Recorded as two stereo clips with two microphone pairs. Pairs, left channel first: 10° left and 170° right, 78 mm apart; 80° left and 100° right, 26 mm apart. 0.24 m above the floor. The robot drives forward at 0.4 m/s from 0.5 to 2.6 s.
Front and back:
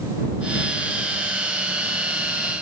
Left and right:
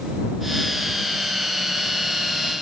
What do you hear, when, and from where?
Only background noise.